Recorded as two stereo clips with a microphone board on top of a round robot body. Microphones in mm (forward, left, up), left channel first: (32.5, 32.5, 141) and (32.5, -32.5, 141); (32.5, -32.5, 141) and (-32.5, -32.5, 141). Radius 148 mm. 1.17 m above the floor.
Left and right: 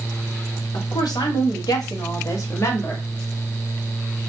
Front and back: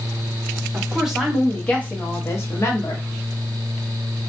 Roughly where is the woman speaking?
Left.